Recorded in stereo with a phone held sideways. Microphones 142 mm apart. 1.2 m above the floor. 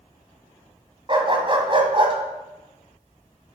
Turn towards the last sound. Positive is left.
turn(degrees=-40)  # may be behind; listen again after turning